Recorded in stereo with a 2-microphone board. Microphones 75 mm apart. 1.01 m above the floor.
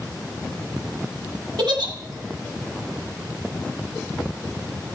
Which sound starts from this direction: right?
A giggle, at 1.6 s.